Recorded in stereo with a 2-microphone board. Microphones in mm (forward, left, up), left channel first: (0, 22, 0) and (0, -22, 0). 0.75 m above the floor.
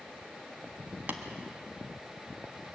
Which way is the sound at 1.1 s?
45° right (ahead or behind).